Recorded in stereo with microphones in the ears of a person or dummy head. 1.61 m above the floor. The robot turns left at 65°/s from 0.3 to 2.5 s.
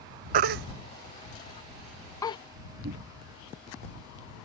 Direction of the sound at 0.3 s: 55° right (ahead or behind).